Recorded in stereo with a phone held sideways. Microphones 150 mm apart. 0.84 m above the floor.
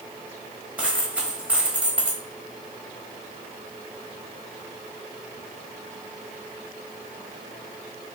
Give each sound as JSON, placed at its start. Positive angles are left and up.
{"t": 0.8, "sound": "a dropped coin", "side_deg": -10, "distance_m": 1.1}